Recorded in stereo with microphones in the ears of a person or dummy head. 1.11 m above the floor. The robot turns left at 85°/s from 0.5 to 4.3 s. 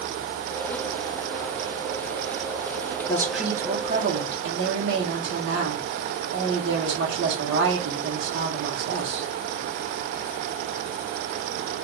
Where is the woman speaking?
25° left, 1.1 m; by 9.3 s 80° right, 1.1 m.